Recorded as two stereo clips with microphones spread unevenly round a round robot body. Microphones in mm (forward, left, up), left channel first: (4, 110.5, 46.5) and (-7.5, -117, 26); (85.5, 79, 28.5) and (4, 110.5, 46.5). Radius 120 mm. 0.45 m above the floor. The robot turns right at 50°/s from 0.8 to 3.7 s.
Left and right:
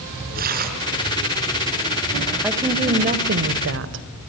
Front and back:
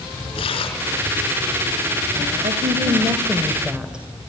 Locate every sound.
0.3 s tearing paper: 40° right, 4 m; by 0.9 s 35° right, 4 m
2.4 s a woman speaking: 175° right, 1.9 m; by 4.0 s 115° right, 1.9 m